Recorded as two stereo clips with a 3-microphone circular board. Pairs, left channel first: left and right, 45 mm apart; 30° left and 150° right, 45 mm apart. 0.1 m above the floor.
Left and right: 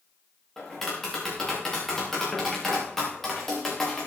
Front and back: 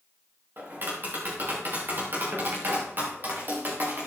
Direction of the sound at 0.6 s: 170° left.